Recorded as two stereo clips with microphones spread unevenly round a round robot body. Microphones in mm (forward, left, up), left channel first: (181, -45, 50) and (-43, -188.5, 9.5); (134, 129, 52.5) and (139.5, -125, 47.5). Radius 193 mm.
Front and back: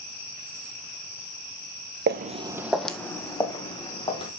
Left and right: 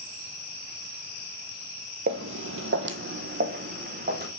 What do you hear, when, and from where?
2.1 s footsteps: 110° right, 0.6 m; by 4.3 s 35° right, 2.5 m